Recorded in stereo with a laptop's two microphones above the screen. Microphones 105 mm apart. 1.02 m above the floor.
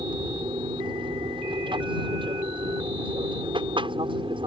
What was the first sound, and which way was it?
An aircraft, 50° right (ahead or behind).